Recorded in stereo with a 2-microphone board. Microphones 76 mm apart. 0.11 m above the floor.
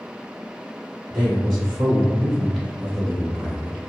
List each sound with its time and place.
1.1 s a man speaking: 5° left (ahead or behind), 1.5 m